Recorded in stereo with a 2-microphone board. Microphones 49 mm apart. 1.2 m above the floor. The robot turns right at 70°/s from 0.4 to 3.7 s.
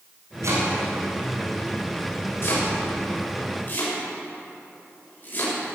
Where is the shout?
I don't hear a shout.